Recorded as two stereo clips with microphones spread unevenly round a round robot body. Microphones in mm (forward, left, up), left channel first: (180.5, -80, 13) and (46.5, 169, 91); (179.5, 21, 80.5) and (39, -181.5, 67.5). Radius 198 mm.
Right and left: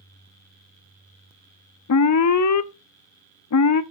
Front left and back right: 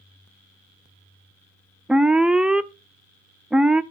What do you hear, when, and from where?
1.9 s an alarm: 40° right, 0.9 m